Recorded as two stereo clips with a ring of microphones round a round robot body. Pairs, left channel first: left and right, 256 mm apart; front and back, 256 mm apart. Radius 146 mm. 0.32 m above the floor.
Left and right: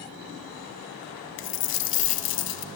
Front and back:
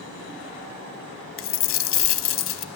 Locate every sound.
1.4 s a dropped coin: 40° left, 0.7 m